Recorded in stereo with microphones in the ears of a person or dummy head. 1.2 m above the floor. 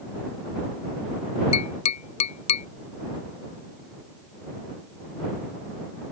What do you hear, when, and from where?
1.5 s tapping: 40° left (ahead or behind)